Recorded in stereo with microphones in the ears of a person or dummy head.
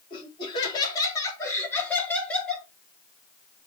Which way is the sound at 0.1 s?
30° left (ahead or behind).